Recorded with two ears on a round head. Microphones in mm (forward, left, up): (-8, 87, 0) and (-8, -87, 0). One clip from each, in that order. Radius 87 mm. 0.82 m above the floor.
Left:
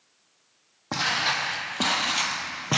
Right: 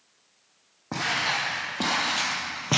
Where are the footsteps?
40° left (ahead or behind), 1.5 m; by 2.8 s 5° right (ahead or behind), 0.8 m.